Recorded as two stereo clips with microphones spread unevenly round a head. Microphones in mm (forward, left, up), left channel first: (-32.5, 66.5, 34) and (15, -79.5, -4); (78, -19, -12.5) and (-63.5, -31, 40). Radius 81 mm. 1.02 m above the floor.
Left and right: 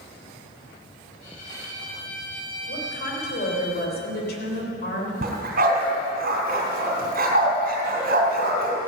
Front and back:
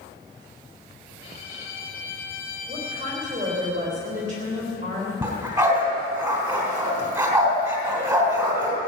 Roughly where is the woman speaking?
Behind left.